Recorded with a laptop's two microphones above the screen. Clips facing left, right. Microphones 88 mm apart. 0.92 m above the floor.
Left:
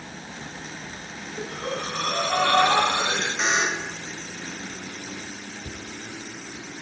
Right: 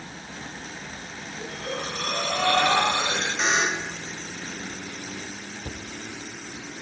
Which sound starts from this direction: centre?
A buzzer, at 3.4 s.